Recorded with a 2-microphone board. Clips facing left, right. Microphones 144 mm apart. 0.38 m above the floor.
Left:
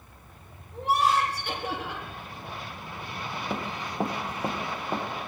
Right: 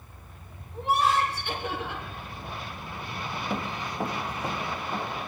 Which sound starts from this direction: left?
Laughter, at 0.7 s.